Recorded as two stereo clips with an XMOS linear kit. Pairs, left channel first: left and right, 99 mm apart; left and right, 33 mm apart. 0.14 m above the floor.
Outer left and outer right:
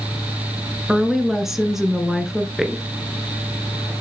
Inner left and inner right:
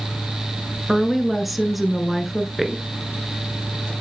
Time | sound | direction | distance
0.9 | a woman speaking | 5° right (ahead or behind) | 1.5 m